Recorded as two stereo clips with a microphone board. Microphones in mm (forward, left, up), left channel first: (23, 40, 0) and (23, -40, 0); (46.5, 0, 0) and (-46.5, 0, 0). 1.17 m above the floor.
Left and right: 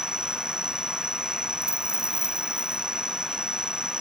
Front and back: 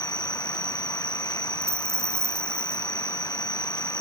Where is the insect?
35° left.